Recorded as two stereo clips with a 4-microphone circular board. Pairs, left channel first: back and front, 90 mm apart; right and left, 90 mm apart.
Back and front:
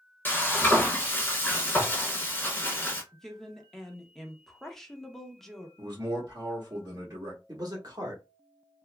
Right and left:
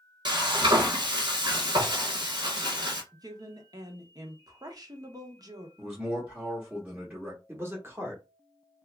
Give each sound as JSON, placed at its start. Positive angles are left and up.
{"t": 0.2, "sound": "frying", "azimuth_deg": 115, "distance_m": 0.9}
{"t": 3.1, "sound": "a woman speaking", "azimuth_deg": 95, "distance_m": 0.7}
{"t": 5.8, "sound": "a man speaking", "azimuth_deg": 25, "distance_m": 1.1}
{"t": 7.5, "sound": "a man speaking", "azimuth_deg": 35, "distance_m": 1.1}